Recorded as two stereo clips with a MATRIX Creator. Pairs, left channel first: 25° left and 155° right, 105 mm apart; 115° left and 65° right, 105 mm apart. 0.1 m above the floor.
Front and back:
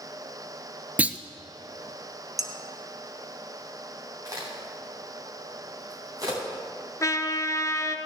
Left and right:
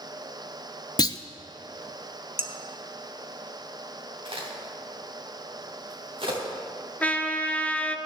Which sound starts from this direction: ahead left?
A trumpet, at 7.0 s.